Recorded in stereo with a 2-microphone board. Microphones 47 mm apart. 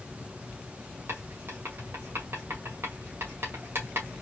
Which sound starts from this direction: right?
Writing, at 1.1 s.